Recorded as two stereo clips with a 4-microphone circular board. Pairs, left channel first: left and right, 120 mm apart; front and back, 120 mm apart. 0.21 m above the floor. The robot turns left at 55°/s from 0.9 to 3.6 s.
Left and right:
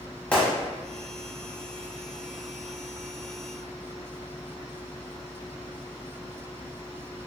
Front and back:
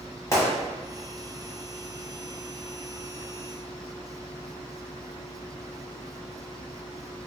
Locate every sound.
0.3 s a gunshot: 25° left, 1.1 m